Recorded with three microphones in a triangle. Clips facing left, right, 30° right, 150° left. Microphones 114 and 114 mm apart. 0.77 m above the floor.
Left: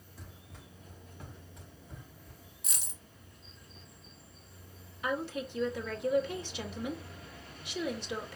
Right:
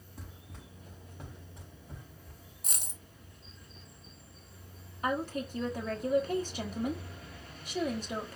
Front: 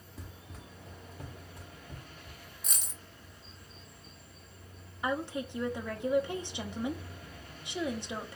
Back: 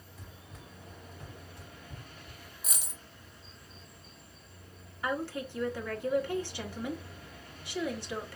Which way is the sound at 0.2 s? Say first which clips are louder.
Right 2 dB, front 3 dB; 50° right.